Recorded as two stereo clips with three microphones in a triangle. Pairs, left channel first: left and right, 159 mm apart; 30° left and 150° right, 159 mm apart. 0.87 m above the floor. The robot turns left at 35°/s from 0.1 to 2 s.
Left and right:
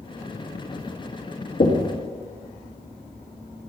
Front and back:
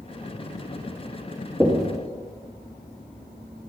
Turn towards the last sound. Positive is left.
turn(degrees=115)